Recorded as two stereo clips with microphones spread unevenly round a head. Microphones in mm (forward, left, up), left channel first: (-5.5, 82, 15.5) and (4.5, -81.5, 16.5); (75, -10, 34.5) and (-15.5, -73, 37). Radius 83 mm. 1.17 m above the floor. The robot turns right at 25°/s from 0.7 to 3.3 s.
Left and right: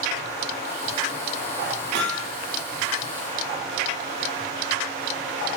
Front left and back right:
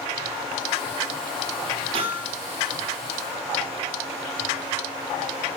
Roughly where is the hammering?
Behind right.